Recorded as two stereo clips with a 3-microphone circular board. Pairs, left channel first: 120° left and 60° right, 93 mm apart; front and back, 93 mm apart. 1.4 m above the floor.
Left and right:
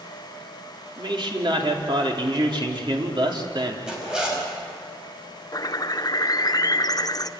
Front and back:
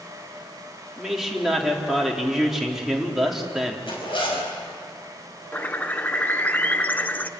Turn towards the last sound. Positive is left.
turn(degrees=70)